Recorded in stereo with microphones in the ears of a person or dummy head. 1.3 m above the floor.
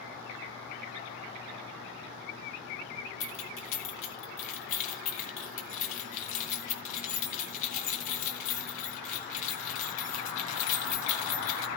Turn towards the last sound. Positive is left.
turn(degrees=50)  # may be behind; listen again after turning